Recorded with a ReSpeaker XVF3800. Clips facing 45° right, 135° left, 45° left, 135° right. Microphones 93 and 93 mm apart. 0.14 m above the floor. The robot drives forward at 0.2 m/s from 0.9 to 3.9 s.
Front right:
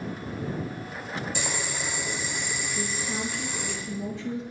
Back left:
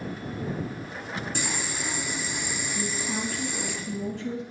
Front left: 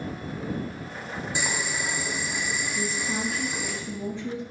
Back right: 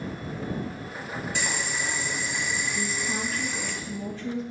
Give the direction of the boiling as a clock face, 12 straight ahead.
8 o'clock.